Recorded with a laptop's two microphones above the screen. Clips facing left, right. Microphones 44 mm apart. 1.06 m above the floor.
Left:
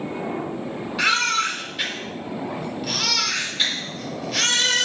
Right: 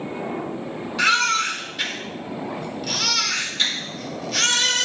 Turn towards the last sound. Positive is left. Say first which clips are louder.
# right 2 dB
turn(degrees=5)  # may be behind; listen again after turning